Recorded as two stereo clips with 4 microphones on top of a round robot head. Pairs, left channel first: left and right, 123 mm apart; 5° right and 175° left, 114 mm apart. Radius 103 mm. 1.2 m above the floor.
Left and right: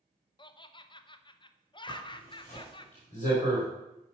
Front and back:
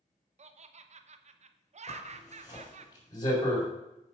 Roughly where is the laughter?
Behind left.